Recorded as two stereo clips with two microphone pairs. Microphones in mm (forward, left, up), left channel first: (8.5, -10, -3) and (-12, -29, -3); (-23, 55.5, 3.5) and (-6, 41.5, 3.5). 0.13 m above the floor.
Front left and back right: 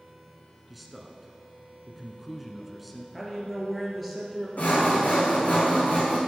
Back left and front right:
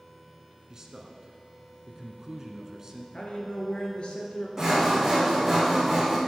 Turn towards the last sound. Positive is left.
turn(degrees=30)